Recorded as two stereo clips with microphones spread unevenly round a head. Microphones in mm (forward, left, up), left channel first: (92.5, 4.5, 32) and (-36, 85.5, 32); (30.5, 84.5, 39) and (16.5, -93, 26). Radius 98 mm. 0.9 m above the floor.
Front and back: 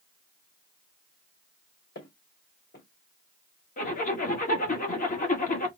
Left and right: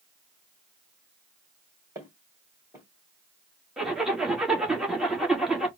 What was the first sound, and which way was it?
Footsteps, 20° right.